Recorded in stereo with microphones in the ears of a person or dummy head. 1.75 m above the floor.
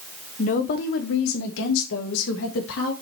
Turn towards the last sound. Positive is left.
turn(degrees=70)  # may be behind; listen again after turning